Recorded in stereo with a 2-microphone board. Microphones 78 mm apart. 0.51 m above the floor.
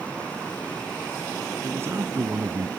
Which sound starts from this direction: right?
A man speaking, at 1.6 s.